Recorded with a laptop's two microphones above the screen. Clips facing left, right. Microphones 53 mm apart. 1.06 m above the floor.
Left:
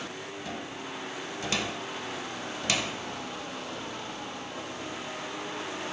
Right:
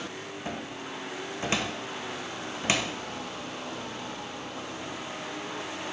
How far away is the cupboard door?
About 0.9 m.